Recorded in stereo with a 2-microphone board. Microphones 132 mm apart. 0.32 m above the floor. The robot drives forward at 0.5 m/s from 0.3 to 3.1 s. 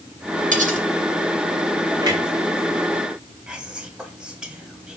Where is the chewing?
I don't hear chewing.